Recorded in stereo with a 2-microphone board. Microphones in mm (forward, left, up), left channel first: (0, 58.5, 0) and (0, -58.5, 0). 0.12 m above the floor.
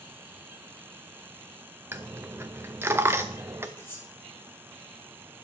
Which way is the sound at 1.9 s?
20° right (ahead or behind).